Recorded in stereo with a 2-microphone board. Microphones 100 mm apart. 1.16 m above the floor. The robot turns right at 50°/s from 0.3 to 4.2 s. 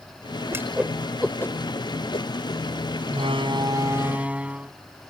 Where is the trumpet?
I don't hear a trumpet.